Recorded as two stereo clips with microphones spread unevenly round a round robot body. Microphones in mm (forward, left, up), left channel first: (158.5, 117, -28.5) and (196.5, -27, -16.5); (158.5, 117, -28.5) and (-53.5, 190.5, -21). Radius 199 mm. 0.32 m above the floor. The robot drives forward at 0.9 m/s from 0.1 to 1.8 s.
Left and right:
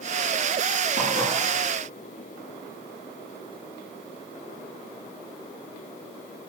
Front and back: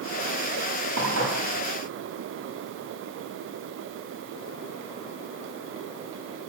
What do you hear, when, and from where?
1.0 s dishes clattering: 140° right, 8.5 m